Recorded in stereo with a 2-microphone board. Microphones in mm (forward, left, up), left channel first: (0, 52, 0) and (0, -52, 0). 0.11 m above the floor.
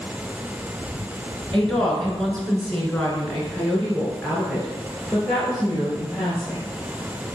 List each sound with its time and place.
1.5 s a woman speaking: 5° left (ahead or behind), 1.7 m